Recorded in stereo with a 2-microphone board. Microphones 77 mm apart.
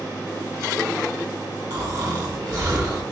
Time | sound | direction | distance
1.7 | snoring | 50° right (ahead or behind) | 1.3 m